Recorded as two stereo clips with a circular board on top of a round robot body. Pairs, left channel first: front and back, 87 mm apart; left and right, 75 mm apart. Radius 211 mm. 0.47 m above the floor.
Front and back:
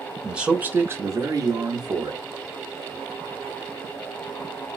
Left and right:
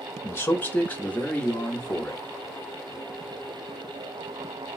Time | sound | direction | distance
0.2 | a man speaking | 100° left | 1.0 m